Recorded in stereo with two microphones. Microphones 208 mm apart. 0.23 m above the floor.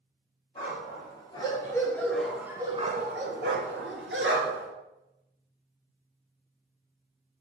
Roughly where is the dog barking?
Left.